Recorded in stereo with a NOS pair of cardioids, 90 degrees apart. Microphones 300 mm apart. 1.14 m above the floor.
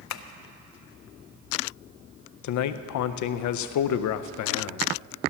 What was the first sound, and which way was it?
Tapping, 60° left.